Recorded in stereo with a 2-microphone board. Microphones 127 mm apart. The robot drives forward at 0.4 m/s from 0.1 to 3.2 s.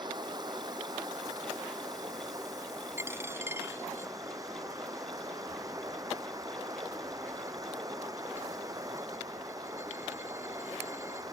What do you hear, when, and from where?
0.0 s running water: 35° right (ahead or behind); by 11.3 s 30° right (ahead or behind)
3.0 s a dropped coin: 20° right (ahead or behind)